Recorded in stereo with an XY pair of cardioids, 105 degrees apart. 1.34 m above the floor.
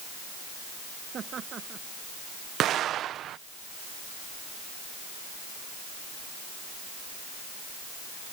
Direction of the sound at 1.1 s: 50° right.